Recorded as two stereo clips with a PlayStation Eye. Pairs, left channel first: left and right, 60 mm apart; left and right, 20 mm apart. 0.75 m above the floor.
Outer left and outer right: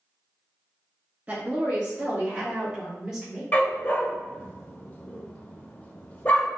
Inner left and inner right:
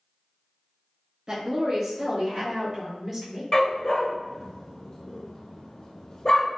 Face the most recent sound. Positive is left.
turn(degrees=25)  # may be behind; listen again after turning